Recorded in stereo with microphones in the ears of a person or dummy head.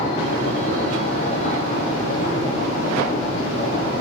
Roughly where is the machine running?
Left.